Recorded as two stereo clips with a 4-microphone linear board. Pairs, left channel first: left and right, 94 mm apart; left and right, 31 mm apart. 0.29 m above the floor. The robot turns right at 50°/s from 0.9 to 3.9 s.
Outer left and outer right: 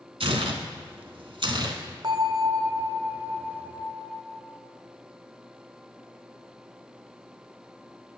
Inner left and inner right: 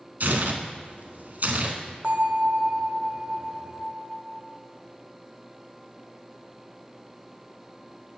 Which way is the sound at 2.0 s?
75° right.